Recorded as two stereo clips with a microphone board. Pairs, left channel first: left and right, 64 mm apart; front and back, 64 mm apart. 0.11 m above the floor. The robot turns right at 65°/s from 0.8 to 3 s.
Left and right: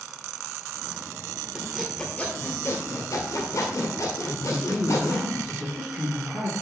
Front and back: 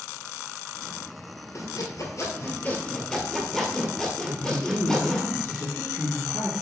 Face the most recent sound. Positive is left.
turn(degrees=-10)